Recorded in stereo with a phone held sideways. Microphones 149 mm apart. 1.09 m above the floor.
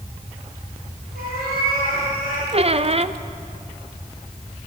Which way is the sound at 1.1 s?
85° right.